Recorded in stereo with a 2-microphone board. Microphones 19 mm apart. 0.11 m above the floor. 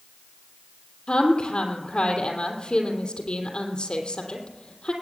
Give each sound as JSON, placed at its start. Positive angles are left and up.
{"t": 1.1, "sound": "a woman speaking", "side_deg": 70, "distance_m": 3.0}